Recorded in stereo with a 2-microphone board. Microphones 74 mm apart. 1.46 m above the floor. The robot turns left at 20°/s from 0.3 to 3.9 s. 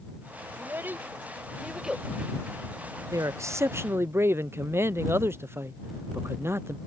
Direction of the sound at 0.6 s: 35° right (ahead or behind).